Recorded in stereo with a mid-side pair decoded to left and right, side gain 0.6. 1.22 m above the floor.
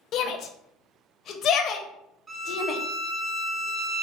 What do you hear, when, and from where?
0.1 s a shout: 50° left, 0.6 m
2.3 s a violin: 25° right, 0.6 m